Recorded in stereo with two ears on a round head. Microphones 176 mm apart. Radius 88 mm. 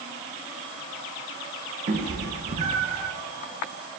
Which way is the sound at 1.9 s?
40° right (ahead or behind).